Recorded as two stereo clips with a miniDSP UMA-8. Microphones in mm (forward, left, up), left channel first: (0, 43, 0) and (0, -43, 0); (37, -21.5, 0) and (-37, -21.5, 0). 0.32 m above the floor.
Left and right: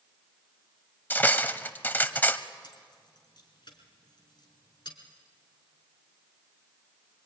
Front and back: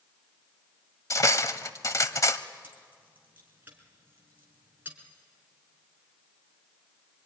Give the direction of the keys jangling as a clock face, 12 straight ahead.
8 o'clock.